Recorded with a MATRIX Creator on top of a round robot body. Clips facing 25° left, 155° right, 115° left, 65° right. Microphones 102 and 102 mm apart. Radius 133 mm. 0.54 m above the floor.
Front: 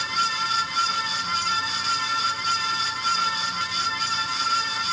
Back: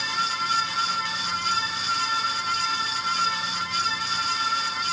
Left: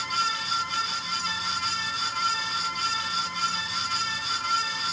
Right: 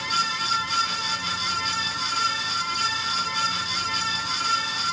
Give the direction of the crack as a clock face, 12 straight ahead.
I don't hear a crack.